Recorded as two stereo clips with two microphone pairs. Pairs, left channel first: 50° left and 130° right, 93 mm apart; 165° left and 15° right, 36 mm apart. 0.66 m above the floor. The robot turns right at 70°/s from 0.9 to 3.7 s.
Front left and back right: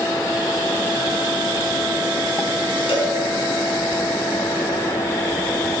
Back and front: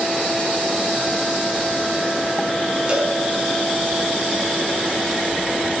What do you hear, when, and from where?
2.9 s a cowbell: 50° left, 5.5 m; by 3.2 s 70° left, 5.5 m